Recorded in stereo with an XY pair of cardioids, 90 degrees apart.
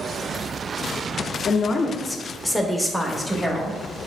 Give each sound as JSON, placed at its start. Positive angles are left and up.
{"t": 1.5, "sound": "a woman speaking", "azimuth_deg": 65, "distance_m": 0.5}